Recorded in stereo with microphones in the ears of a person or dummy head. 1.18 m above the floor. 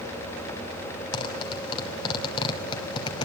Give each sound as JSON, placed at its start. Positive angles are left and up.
{"t": 1.1, "sound": "a zipper", "side_deg": 25, "distance_m": 2.5}